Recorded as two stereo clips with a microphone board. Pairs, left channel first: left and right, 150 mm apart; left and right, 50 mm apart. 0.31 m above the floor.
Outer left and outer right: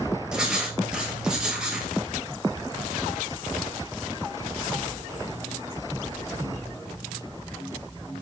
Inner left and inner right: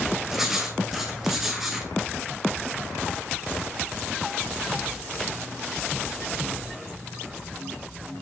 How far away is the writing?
About 2 m.